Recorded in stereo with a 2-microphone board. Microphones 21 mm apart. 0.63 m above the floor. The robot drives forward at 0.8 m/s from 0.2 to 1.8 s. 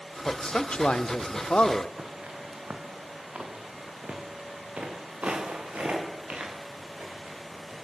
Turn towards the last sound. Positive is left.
turn(degrees=-85)